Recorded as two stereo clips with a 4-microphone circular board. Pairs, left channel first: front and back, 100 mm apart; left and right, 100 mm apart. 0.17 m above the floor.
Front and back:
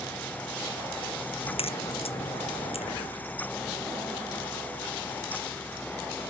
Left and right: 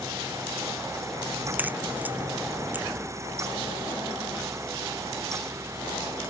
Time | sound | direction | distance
1.4 | a crack | 15° right | ?